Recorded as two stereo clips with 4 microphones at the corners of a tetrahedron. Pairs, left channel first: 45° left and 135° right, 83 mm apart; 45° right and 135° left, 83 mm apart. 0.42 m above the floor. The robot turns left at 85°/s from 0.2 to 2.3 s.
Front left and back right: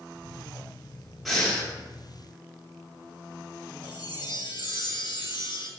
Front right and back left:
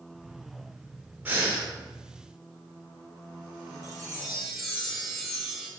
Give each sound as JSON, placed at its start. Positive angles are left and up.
{"t": 1.2, "sound": "breathing", "azimuth_deg": 135, "distance_m": 0.8}
{"t": 3.8, "sound": "a chime", "azimuth_deg": 50, "distance_m": 0.7}